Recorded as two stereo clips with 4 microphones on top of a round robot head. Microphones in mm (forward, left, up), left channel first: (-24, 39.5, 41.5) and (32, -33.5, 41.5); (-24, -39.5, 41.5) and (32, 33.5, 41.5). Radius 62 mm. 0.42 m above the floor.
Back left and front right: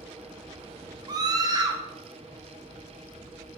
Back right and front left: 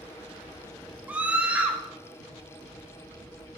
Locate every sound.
1.1 s a scream: 20° right, 2 m